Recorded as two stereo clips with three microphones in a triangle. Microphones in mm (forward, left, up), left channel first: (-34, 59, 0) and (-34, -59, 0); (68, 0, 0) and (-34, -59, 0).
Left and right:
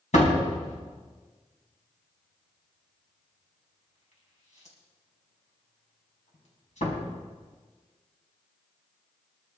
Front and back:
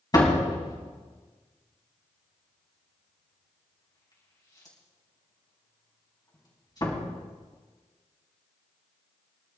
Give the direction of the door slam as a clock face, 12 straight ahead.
9 o'clock.